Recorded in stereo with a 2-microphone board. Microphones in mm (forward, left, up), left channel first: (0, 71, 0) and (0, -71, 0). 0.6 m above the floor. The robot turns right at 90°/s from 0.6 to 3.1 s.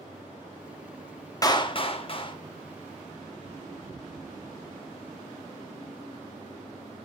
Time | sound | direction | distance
1.4 | a clap | 40° left | 0.8 m